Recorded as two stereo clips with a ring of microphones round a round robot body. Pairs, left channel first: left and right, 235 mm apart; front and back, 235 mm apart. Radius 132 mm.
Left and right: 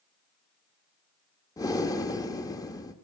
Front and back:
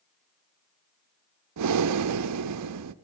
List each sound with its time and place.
1.6 s breathing: 170° left, 0.6 m